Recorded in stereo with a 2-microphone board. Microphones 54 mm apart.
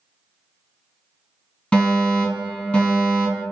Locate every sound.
1.7 s a fire alarm: 25° left (ahead or behind), 1.9 m